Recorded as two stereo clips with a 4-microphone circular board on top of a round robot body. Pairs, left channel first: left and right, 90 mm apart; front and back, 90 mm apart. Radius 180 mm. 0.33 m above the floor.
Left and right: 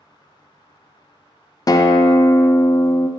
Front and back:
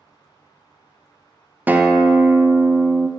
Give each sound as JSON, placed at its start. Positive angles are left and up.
{"t": 1.7, "sound": "a guitar", "azimuth_deg": 115, "distance_m": 0.5}